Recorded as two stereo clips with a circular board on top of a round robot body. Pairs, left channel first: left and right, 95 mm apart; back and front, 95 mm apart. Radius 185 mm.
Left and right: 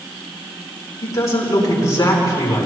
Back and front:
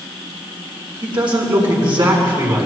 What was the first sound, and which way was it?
A man speaking, 35° left.